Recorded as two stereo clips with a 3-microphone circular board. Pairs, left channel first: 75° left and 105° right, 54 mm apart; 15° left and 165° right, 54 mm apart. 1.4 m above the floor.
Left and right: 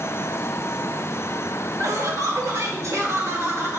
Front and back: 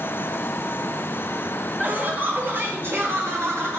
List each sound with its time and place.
1.8 s laughter: 105° right, 2.0 m; by 3.8 s 130° right, 2.5 m